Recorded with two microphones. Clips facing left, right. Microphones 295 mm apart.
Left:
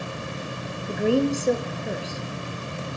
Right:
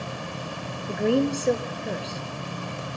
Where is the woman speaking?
Centre (ahead or behind), 2 m.